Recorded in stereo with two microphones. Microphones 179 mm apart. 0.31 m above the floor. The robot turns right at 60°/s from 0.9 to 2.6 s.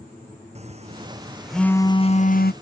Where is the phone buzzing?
35° right; by 2.5 s 60° left.